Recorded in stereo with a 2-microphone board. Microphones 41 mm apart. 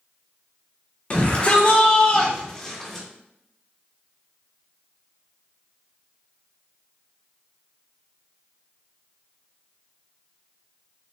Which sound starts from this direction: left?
A shout, at 1.1 s.